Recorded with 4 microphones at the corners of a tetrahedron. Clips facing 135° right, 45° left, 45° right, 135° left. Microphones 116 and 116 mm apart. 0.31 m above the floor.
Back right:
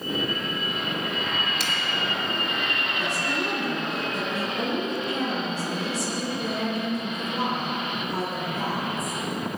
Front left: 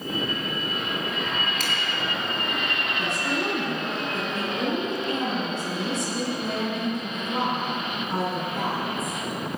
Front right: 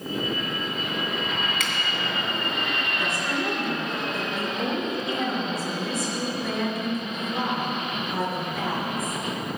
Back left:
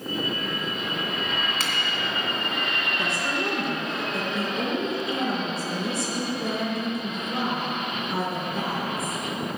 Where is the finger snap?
80° left, 2.5 m.